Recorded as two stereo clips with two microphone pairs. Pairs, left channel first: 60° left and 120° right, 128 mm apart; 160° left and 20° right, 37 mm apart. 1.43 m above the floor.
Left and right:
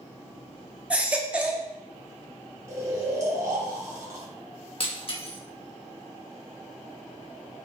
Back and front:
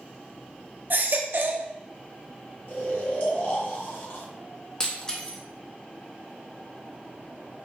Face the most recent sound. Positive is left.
turn(degrees=90)